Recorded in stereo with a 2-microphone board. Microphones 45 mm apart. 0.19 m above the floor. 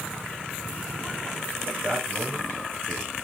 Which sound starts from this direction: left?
A man speaking, at 1.6 s.